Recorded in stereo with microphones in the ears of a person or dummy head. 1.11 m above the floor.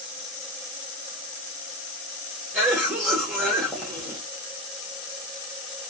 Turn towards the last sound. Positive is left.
turn(degrees=-10)  # may be behind; listen again after turning